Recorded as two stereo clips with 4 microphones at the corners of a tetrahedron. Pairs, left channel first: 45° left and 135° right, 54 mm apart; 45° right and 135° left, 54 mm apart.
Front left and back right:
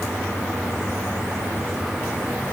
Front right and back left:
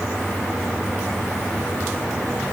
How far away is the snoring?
No snoring in this recording.